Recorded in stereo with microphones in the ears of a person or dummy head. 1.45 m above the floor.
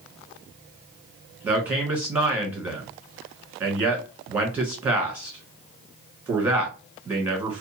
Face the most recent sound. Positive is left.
turn(degrees=-10)  # may be behind; listen again after turning